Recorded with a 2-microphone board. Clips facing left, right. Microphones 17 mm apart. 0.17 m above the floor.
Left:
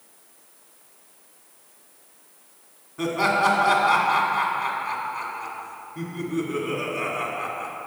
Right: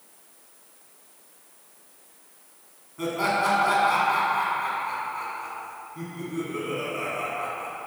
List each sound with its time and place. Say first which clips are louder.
3.0 s laughter: left 3 dB; 25° left (ahead or behind), 1.5 m